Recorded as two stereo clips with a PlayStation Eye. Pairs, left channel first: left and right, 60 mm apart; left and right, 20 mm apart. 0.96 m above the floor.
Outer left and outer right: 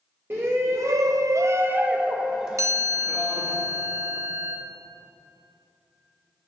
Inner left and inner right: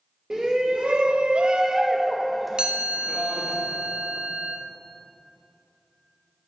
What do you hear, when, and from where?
0.3 s a shout: 40° right (ahead or behind), 1.0 m; by 3.6 s centre (ahead or behind), 2.0 m
2.6 s a chime: 60° right (ahead or behind), 0.8 m